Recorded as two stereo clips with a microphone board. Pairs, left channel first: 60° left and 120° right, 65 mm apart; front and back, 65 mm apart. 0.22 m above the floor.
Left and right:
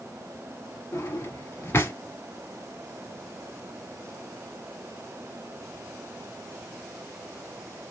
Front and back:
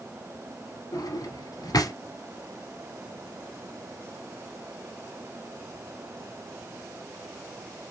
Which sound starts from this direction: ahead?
A drawer, at 0.9 s.